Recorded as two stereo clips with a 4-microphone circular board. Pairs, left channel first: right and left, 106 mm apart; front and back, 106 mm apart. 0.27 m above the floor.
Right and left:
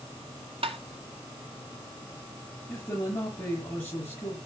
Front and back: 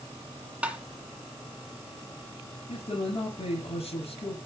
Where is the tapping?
105° left, 1.7 m.